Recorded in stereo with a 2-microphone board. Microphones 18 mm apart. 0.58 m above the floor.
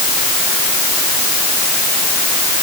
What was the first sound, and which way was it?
Only background noise.